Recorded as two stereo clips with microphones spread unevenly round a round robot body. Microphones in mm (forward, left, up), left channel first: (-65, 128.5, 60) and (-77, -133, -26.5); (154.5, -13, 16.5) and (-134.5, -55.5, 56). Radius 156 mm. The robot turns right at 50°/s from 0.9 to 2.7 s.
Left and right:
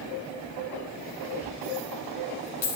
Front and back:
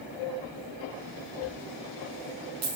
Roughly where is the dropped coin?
Left.